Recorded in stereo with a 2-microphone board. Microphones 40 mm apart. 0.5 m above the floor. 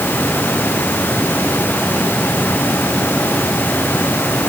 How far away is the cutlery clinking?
No cutlery clinking in this recording.